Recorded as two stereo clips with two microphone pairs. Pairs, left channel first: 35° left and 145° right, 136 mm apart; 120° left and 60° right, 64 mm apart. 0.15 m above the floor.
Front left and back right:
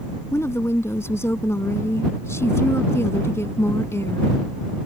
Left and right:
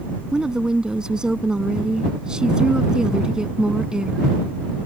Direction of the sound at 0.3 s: Straight ahead.